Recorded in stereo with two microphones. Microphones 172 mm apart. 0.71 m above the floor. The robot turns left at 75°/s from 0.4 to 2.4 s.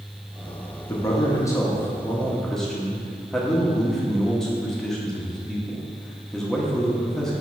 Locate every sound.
0.9 s a man speaking: 15° left (ahead or behind), 0.9 m; by 7.4 s 5° left (ahead or behind), 0.9 m